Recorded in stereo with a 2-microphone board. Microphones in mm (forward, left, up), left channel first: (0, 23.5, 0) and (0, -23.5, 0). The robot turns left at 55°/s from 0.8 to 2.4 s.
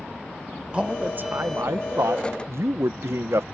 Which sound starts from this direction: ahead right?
A man speaking, at 0.7 s.